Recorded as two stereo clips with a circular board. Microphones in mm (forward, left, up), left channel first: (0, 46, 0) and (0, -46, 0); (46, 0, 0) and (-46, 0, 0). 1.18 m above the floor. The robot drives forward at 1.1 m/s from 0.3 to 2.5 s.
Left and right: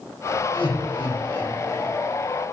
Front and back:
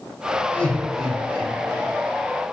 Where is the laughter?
70° left, 1.5 m; by 1.9 s 130° left, 1.8 m.